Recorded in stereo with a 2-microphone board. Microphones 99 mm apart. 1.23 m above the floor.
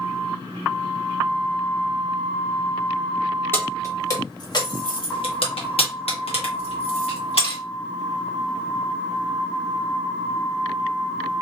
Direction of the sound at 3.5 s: 20° left (ahead or behind).